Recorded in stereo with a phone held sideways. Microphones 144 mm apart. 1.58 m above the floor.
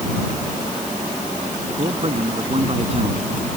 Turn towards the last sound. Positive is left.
turn(degrees=-45)  # may be behind; listen again after turning